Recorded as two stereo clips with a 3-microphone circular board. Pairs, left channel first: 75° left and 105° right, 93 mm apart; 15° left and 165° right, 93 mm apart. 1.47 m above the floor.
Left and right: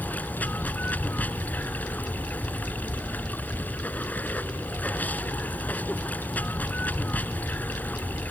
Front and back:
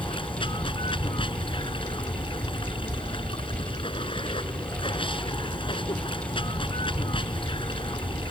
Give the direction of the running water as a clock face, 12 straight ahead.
12 o'clock.